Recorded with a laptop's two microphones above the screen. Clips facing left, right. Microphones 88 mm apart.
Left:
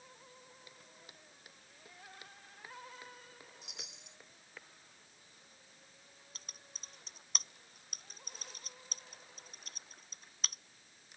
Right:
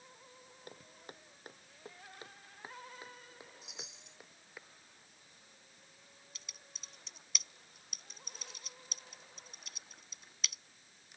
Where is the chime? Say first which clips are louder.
Right 2 dB; 70° left (ahead or behind).